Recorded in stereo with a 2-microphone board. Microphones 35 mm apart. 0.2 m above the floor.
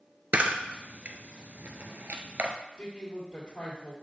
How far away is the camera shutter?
About 0.9 m.